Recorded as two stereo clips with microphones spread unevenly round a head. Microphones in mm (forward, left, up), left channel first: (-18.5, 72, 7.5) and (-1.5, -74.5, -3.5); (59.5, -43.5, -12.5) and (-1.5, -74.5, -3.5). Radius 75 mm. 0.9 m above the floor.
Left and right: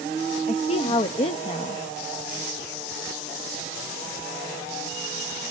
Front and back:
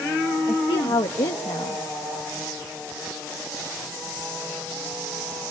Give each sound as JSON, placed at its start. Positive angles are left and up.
{"t": 0.5, "sound": "a woman speaking", "azimuth_deg": 40, "distance_m": 0.7}